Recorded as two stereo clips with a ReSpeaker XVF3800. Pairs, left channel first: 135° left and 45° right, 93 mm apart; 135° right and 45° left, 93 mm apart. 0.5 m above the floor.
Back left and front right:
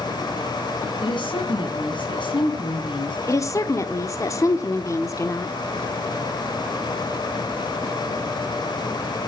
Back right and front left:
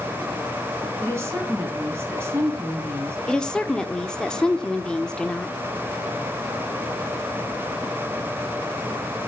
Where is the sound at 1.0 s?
105° left, 3.5 m.